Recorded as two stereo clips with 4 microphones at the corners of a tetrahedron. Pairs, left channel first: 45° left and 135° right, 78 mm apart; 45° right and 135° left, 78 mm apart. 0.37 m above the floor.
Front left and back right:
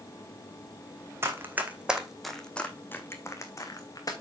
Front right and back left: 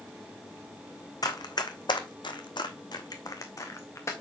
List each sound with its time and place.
1.2 s running footsteps: 80° right, 1.4 m; by 4.1 s 5° left, 1.9 m